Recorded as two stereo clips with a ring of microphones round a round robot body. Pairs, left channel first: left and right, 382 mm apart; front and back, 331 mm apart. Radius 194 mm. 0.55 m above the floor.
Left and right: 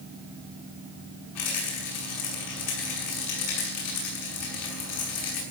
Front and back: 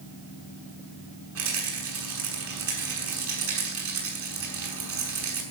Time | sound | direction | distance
1.4 | a rattle | 135° left | 6.5 m